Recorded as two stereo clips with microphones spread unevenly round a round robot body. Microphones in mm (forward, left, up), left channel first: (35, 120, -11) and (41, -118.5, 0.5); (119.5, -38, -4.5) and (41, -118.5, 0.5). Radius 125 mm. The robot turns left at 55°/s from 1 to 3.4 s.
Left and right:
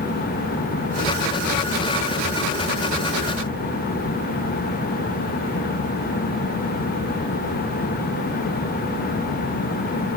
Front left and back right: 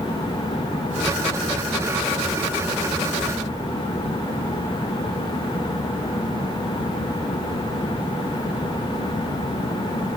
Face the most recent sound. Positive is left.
No sound to turn to.